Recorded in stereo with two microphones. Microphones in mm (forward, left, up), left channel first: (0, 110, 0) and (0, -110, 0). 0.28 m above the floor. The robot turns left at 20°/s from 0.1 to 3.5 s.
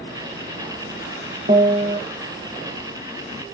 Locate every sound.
1.5 s a piano: 35° right (ahead or behind), 1.3 m; by 2.0 s 45° right (ahead or behind), 1.3 m